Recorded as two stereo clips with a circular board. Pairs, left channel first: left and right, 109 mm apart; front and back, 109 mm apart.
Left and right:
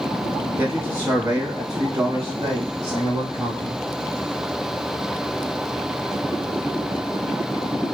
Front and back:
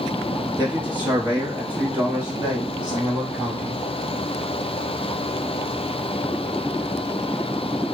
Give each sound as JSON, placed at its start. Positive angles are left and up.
{"t": 0.6, "sound": "a man speaking", "azimuth_deg": -125, "distance_m": 1.9}